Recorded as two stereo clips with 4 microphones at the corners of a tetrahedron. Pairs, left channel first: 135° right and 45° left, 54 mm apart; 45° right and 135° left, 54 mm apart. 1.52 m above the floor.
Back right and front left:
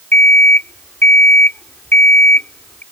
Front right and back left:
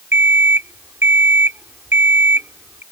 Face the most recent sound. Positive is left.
turn(degrees=180)